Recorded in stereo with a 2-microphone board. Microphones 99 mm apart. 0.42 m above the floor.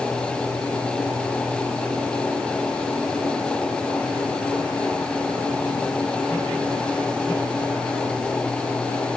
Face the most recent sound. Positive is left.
No sound to turn to.